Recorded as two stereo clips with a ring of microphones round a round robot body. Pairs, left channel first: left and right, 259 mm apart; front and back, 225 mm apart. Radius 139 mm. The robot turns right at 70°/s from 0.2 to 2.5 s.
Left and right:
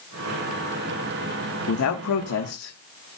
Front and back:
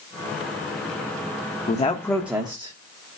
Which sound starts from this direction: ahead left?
A man speaking, at 1.7 s.